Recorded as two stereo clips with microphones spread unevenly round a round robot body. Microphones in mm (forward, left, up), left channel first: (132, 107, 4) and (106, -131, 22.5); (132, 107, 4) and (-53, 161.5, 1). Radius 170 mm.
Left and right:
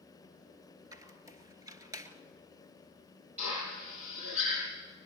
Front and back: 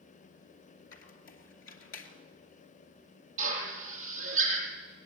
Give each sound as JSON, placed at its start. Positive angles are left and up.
{"t": 0.9, "sound": "a squeak", "azimuth_deg": -20, "distance_m": 2.5}
{"t": 3.4, "sound": "a drill", "azimuth_deg": -165, "distance_m": 6.5}